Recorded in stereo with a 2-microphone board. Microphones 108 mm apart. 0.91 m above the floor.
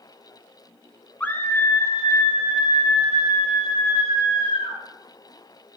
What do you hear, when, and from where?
1.2 s a scream: 15° left (ahead or behind), 0.9 m; by 4.8 s 70° left (ahead or behind), 3 m